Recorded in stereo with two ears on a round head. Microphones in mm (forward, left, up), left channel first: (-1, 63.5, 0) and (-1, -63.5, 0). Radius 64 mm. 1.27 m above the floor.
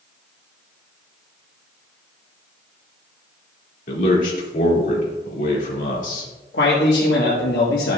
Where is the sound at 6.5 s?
90° left, 1.4 m.